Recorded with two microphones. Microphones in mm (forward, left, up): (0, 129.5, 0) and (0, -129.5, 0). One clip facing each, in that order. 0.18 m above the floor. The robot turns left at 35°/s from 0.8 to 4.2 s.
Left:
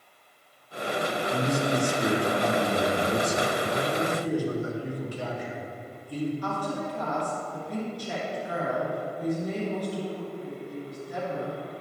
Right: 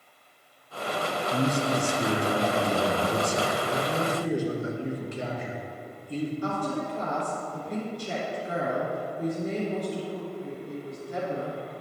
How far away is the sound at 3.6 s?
About 1.5 m.